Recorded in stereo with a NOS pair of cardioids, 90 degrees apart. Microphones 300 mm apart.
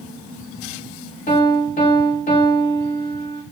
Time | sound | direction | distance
1.3 | a piano | 25° left | 1.5 m